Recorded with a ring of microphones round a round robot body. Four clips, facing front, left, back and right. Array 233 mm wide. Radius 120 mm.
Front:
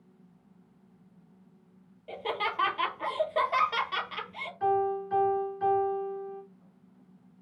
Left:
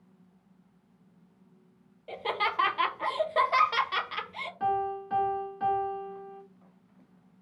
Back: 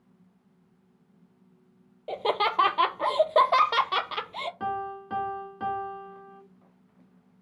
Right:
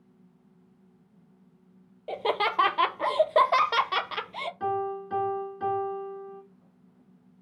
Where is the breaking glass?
No breaking glass in this recording.